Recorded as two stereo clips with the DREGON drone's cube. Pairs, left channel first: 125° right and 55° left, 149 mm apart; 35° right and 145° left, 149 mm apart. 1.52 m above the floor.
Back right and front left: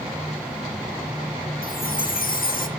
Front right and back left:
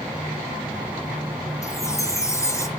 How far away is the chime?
About 1.2 m.